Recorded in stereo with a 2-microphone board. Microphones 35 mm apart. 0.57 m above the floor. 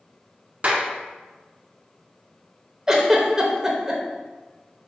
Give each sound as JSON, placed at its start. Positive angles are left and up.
{"t": 0.6, "sound": "a clap", "side_deg": -40, "distance_m": 0.8}
{"t": 2.9, "sound": "a giggle", "side_deg": -10, "distance_m": 0.8}